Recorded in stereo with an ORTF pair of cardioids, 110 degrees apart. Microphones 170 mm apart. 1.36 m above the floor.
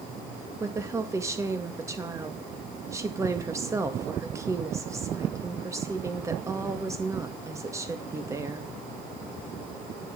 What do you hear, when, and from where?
0.6 s a woman speaking: 15° right, 1.9 m